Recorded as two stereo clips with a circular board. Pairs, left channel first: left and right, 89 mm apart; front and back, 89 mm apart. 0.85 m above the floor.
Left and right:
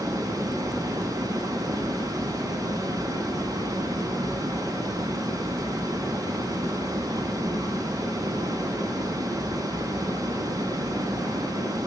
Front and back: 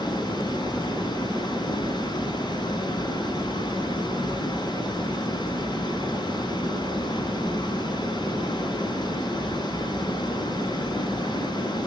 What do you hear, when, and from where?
0.0 s running water: 40° right, 3 m